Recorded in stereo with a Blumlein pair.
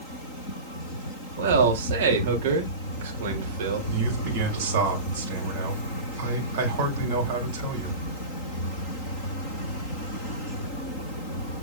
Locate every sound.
1.4 s a man speaking: 55° right, 2.5 m
3.9 s a man speaking: 55° right, 4 m